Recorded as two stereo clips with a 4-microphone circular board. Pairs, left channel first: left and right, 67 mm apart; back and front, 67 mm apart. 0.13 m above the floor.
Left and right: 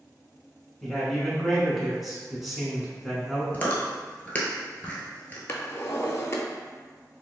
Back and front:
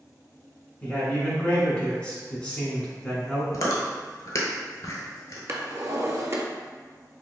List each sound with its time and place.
0.8 s a man speaking: 175° right, 1.0 m
3.5 s chewing: 155° left, 0.8 m
5.5 s a drawer: 45° left, 0.5 m